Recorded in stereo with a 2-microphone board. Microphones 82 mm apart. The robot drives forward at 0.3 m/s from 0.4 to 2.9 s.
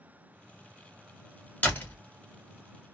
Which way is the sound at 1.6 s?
20° left (ahead or behind).